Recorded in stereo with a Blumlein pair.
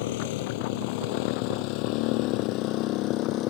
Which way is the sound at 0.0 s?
50° left.